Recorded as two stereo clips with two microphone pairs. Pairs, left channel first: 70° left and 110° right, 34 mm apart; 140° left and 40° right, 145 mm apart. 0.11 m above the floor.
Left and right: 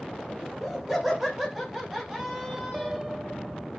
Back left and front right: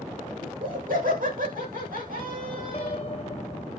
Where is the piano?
175° left, 1.4 m.